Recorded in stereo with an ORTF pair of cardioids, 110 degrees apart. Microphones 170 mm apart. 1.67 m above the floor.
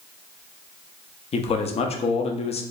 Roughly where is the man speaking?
Ahead left.